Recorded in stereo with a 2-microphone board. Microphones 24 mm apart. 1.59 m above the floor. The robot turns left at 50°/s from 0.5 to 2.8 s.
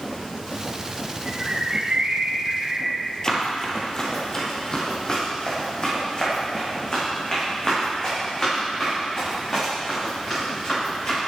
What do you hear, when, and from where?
1.2 s a bird: 25° right, 3.5 m; by 3.0 s 105° right, 3.5 m
3.2 s running footsteps: 30° left (ahead or behind), 2.5 m; by 11.2 s 40° left (ahead or behind), 13 m